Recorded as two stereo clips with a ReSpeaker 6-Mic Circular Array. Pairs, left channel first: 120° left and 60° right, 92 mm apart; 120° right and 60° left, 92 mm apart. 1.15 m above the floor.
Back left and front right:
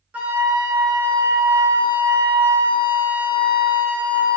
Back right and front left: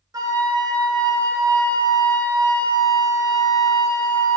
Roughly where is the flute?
Ahead.